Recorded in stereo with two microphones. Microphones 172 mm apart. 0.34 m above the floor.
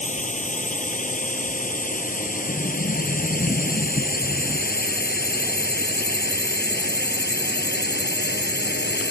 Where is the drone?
45° left (ahead or behind); by 9.1 s 80° left.